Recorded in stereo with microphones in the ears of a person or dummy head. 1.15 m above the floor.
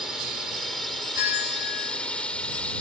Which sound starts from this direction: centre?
A drone, at 0.0 s.